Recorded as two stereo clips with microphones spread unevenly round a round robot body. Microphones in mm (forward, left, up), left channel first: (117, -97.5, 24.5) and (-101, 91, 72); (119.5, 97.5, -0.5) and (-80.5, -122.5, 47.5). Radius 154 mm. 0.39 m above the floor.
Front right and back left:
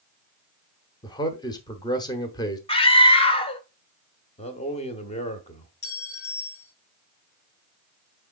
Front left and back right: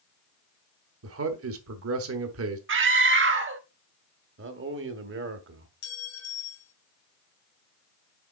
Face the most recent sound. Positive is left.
turn(degrees=20)